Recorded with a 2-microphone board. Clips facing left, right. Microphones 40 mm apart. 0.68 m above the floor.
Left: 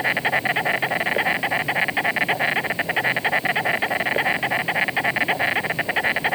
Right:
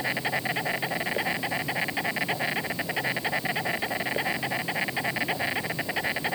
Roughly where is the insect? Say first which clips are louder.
Left 7 dB; left.